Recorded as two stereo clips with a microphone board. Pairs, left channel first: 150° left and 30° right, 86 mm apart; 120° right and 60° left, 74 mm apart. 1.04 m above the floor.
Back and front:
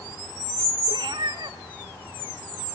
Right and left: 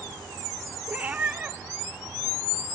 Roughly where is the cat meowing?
Ahead.